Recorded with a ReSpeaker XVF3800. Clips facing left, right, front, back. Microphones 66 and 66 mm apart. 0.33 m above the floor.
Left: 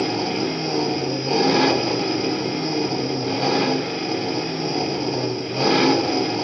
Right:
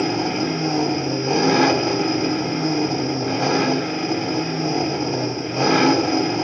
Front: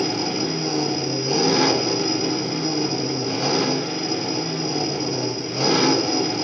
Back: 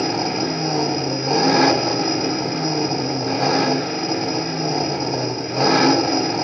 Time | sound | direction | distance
0.0 | an engine running | 160° right | 0.8 m